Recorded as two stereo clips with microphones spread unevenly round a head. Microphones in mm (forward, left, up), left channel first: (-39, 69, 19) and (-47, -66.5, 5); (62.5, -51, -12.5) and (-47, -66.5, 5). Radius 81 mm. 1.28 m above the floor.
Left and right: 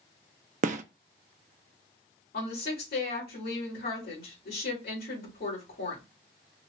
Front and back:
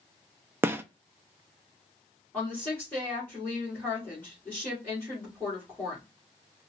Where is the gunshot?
110° right, 0.6 m.